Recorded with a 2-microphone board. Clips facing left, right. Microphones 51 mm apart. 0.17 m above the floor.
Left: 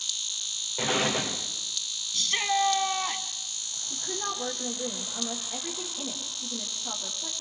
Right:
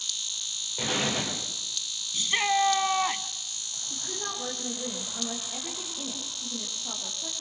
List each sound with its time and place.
0.8 s an explosion: 10° left (ahead or behind), 6.5 m
2.1 s a shout: 15° right (ahead or behind), 1.1 m
3.9 s a woman speaking: 10° left (ahead or behind), 6 m